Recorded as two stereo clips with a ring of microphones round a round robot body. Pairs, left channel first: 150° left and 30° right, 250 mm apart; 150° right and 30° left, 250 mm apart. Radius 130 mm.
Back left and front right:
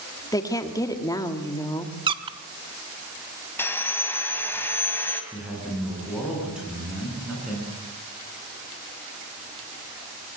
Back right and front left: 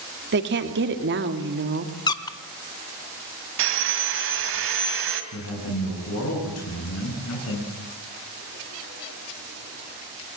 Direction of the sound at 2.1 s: 85° right.